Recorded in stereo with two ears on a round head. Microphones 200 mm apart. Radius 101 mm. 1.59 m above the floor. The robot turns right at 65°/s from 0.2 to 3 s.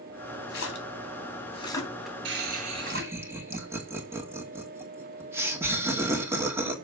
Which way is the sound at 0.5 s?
65° left (ahead or behind).